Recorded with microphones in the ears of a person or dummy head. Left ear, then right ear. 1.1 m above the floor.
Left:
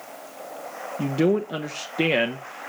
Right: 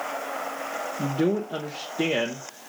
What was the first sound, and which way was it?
A man speaking, 70° left (ahead or behind).